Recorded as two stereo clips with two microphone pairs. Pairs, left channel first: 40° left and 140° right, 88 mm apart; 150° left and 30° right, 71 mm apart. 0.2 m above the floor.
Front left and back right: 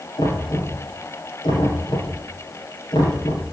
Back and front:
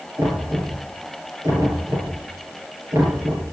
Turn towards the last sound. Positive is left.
turn(degrees=10)